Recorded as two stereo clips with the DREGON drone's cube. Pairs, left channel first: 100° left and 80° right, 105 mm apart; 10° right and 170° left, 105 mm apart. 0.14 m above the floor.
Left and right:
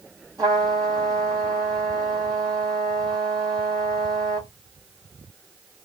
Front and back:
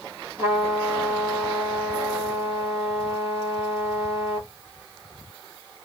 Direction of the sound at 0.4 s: 130° right.